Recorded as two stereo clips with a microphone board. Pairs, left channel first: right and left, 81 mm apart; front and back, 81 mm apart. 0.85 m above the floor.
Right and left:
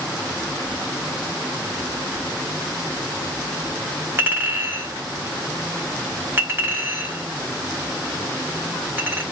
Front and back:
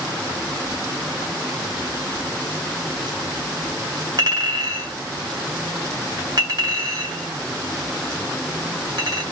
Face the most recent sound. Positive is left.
turn(degrees=150)